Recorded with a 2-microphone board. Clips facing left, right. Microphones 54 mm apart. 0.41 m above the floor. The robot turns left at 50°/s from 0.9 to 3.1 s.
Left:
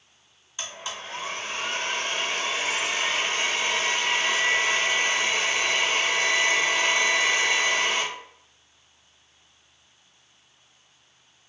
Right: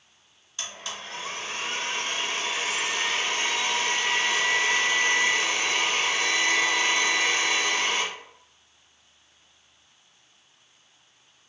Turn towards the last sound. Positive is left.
turn(degrees=50)